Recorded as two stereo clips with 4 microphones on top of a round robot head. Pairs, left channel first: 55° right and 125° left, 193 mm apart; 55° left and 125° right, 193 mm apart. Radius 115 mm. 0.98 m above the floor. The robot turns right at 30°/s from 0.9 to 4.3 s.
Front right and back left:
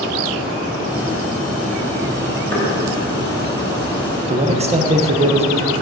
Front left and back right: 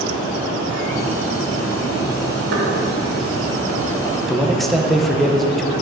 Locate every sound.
2.5 s knocking: 135° right, 2.5 m
4.3 s a man speaking: 145° left, 0.9 m